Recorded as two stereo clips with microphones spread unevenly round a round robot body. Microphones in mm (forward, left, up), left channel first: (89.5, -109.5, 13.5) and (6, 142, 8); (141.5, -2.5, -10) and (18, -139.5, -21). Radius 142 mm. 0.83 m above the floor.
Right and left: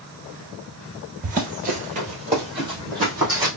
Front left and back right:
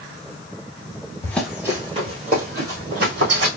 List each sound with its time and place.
1.2 s running footsteps: 100° left, 0.8 m; by 3.5 s 175° right, 2.5 m